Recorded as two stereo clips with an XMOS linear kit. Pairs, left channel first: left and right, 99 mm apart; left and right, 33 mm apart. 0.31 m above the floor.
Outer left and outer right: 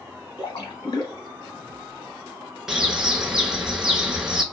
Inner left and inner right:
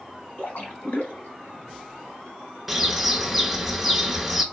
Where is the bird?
5° right (ahead or behind), 0.6 m.